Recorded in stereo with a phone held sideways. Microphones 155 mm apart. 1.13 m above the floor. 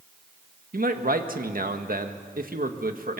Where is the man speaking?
65° right (ahead or behind), 1.6 m.